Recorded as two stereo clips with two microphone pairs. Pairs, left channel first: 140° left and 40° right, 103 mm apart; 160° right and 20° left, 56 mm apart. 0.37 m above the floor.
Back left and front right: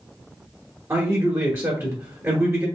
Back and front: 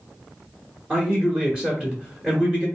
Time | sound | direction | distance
0.9 | a man speaking | 40° right | 1.2 m